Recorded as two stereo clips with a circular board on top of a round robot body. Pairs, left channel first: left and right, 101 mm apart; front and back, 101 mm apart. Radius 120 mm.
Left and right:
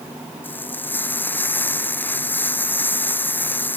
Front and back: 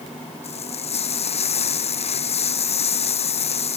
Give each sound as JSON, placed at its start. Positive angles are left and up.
{"t": 0.4, "sound": "frying", "azimuth_deg": 20}